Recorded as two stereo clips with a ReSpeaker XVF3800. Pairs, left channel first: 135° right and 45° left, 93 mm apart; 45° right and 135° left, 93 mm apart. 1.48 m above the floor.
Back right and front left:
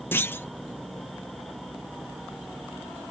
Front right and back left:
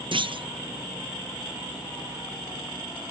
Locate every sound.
0.1 s a clunk: 160° left